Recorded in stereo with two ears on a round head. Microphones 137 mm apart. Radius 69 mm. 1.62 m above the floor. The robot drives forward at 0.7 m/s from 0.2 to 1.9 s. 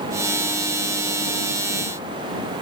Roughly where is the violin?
I don't hear a violin.